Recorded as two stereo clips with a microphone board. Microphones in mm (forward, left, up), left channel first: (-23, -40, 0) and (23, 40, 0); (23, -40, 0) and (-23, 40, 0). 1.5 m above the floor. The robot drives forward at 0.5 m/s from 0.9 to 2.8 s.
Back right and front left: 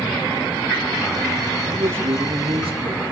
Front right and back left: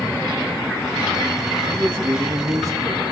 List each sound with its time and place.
1.7 s a man speaking: 55° left, 2 m; by 3.1 s 70° left, 1.9 m